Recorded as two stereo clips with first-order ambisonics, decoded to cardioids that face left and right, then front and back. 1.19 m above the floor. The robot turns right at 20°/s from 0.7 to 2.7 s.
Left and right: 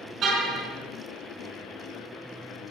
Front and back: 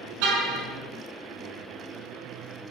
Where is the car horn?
150° right, 5.5 m.